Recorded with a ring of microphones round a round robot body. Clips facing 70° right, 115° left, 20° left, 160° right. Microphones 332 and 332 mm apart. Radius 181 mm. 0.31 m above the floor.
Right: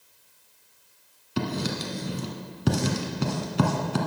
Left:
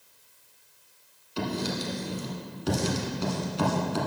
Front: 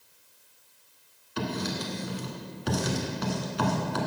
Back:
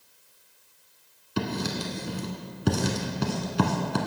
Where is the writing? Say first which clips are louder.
Right 1 dB, back 2 dB; 100° right, 1.1 m.